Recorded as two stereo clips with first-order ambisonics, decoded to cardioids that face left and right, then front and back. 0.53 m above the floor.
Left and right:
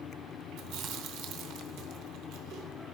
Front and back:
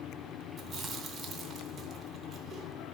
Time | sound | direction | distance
0.6 | chewing | 120° right | 0.9 m